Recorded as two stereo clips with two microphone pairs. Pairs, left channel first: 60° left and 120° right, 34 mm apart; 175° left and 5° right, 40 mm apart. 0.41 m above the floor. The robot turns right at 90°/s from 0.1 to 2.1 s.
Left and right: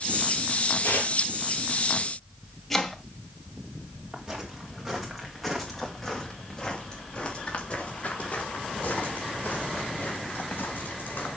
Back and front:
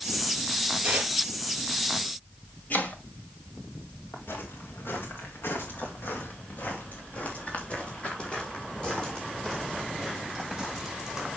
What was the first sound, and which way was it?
Tearing paper, 30° left.